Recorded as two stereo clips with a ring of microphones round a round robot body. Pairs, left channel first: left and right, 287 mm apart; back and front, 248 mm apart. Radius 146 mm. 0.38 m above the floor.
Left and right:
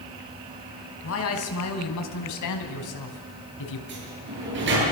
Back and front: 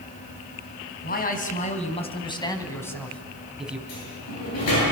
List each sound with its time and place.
1.0 s a man speaking: 130° left, 4 m; by 3.8 s 85° left, 4 m
3.9 s a sliding door: 140° right, 9 m